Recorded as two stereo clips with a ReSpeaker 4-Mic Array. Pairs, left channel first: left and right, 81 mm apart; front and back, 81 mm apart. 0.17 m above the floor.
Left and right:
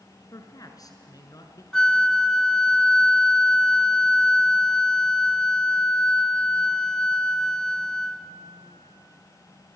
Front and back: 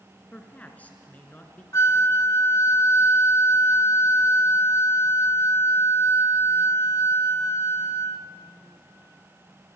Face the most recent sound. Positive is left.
turn(degrees=15)